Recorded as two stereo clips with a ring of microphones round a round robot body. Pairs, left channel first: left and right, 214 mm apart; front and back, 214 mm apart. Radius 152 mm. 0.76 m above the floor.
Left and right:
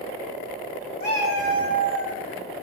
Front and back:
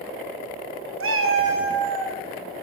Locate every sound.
1.0 s a cat meowing: 155° left, 0.7 m; by 2.1 s 150° left, 1.7 m